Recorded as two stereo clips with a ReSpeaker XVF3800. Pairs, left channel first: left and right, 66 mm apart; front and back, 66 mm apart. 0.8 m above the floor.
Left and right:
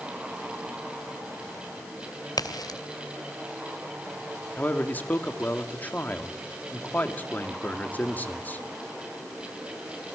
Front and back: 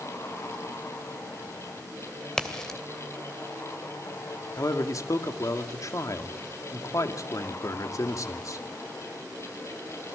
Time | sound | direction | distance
2.4 | a crack | 80° left | 3 m
4.6 | a man speaking | 30° left | 2 m